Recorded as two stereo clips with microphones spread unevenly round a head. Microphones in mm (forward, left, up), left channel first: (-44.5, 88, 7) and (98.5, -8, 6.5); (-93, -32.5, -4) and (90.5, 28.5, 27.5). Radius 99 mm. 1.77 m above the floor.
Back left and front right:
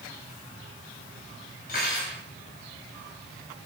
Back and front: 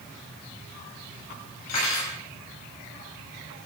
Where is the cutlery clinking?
165° right, 5.5 m.